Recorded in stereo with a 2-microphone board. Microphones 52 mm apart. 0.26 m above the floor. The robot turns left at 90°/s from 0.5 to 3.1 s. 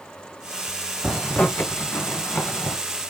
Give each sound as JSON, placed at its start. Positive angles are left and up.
{"t": 1.0, "sound": "a zipper", "side_deg": 0, "distance_m": 1.7}